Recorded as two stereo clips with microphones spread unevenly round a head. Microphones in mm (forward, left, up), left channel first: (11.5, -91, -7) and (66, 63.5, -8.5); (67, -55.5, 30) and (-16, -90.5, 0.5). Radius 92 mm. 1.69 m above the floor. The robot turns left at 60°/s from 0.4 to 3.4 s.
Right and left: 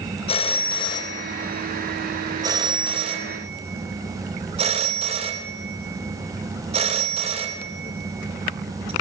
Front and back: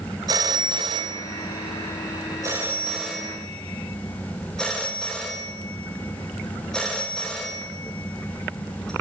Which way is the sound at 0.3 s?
110° right.